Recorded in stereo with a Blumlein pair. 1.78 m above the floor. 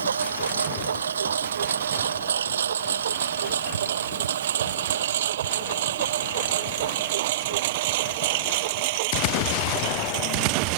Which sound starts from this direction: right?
A lawn mower, at 0.0 s.